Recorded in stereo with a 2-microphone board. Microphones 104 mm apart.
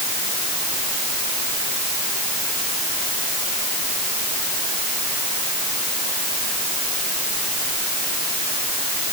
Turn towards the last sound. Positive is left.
No sound to turn to.